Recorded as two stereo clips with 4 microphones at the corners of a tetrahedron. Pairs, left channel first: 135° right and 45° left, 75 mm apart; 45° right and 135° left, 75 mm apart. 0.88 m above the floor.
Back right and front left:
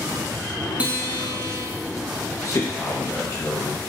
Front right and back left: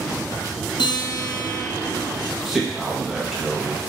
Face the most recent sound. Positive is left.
turn(degrees=-140)